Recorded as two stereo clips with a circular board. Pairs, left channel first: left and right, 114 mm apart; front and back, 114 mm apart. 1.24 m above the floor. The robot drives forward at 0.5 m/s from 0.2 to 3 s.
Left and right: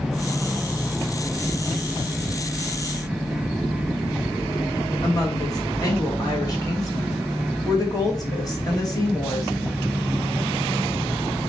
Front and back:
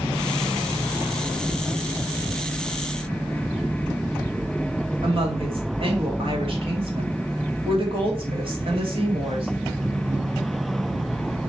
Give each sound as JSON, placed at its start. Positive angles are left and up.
{"t": 5.0, "sound": "a woman speaking", "azimuth_deg": 145, "distance_m": 3.0}